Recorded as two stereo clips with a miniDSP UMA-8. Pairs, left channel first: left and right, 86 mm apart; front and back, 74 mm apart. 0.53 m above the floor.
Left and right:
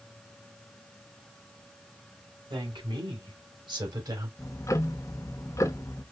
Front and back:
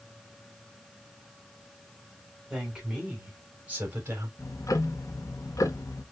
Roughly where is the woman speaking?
Right.